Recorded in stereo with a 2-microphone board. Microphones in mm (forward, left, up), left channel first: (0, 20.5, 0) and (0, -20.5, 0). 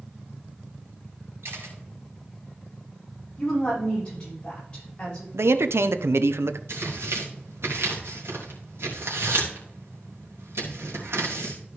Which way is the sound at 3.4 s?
20° left (ahead or behind).